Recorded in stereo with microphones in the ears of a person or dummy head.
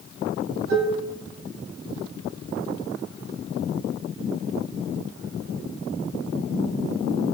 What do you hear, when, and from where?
0.7 s dishes clattering: 80° right, 8.5 m